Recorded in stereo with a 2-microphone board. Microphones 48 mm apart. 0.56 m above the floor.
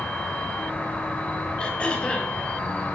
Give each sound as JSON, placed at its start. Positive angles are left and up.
{"t": 0.0, "sound": "an insect", "side_deg": 30, "distance_m": 3.0}
{"t": 1.6, "sound": "throat clearing", "side_deg": 25, "distance_m": 2.5}